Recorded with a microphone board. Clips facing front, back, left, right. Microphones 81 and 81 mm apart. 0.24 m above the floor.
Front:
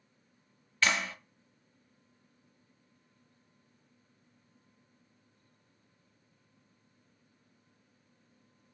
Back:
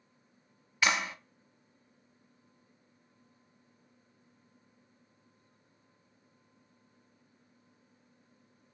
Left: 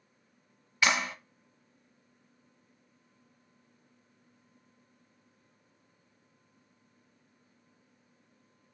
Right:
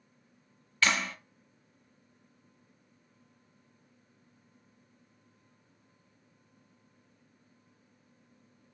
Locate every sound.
0.8 s a clap: 130° left, 0.7 m